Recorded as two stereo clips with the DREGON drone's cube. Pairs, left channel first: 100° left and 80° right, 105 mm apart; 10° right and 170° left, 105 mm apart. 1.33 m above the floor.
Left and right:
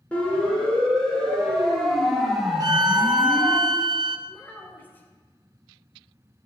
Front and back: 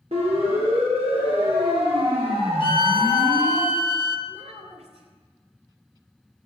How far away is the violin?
About 1.1 m.